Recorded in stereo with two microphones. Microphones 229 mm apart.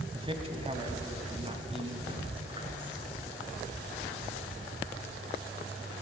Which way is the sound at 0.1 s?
25° right (ahead or behind).